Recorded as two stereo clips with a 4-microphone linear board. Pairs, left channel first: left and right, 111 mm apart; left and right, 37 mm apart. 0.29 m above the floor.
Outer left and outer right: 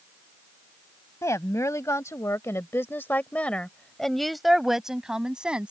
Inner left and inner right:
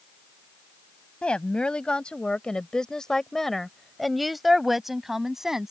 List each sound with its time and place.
1.2 s a woman speaking: 30° left (ahead or behind); by 5.7 s 10° right (ahead or behind)